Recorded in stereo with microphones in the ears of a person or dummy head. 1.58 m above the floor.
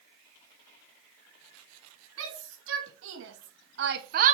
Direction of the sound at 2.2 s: 80° right.